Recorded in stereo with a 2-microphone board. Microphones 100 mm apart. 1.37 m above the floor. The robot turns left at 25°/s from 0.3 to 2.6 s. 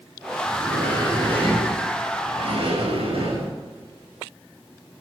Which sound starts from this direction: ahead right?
A sliding door, at 0.5 s.